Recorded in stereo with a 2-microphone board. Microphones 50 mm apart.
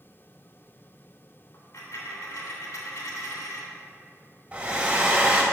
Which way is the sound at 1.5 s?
75° left (ahead or behind).